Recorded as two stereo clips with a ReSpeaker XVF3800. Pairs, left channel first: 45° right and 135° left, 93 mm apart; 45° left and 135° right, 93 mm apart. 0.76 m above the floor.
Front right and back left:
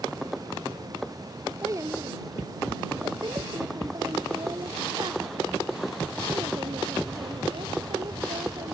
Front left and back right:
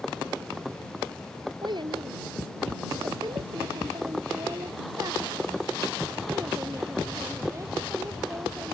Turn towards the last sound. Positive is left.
turn(degrees=160)